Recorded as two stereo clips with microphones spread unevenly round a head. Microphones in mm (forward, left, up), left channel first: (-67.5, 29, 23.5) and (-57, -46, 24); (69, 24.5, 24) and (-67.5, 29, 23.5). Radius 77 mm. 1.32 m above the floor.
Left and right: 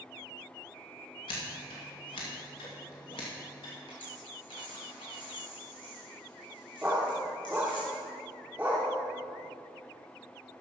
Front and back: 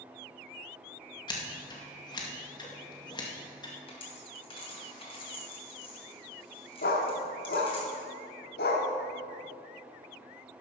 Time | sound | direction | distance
1.3 | scissors | 55° left | 1.8 m
3.9 | a dropped coin | 50° left | 3.5 m
6.8 | a dog barking | 5° right | 1.5 m